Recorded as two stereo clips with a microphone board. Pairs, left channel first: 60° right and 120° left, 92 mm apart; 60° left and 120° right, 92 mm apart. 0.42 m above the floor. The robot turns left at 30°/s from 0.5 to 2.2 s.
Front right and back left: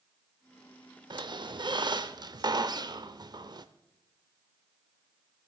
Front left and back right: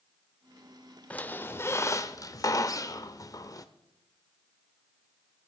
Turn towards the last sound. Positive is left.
turn(degrees=95)